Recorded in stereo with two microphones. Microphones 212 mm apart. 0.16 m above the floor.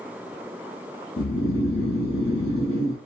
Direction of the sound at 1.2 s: 60° left (ahead or behind).